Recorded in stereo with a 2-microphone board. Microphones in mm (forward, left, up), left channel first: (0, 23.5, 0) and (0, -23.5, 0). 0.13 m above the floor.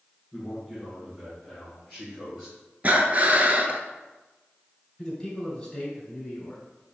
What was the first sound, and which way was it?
A man speaking, 10° left (ahead or behind).